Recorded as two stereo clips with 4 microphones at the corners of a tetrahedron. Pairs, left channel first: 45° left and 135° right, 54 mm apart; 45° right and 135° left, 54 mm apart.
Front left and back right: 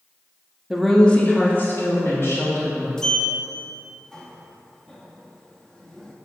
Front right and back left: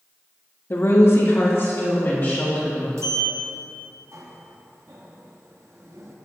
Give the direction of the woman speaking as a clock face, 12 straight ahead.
2 o'clock.